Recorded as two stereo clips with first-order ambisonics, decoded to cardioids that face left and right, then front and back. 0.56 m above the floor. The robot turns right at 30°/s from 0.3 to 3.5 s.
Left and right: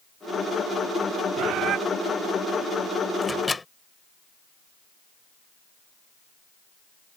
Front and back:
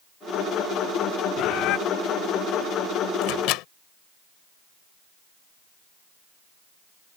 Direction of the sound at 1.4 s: 50° right.